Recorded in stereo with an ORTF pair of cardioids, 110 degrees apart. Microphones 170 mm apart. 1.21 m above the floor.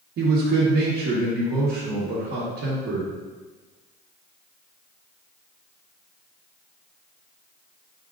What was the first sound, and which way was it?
A man speaking, 65° right.